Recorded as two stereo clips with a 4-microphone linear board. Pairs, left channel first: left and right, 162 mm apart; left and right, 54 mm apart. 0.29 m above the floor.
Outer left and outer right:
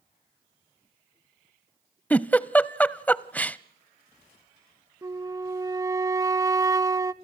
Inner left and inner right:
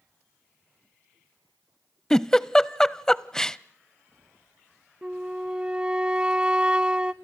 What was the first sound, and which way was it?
A giggle, 10° left (ahead or behind).